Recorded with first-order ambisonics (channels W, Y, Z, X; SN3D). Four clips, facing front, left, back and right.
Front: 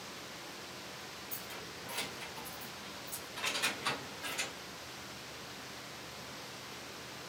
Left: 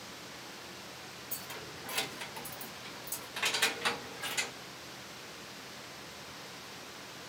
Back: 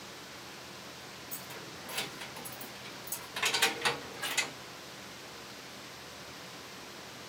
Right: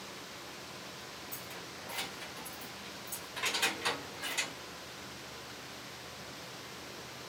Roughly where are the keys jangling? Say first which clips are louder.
Left 1 dB, back 1 dB; left.